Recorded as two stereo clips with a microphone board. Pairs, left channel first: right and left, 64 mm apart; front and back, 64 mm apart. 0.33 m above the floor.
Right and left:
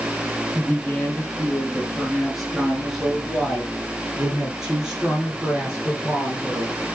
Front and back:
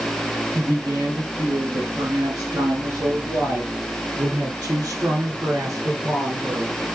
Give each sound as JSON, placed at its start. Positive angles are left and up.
{"t": 0.6, "sound": "a woman speaking", "azimuth_deg": -170, "distance_m": 4.5}